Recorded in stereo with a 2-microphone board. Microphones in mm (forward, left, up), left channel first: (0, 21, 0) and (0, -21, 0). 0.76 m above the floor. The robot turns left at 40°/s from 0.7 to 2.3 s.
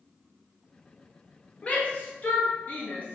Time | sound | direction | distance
1.6 | a shout | 35° left (ahead or behind) | 0.6 m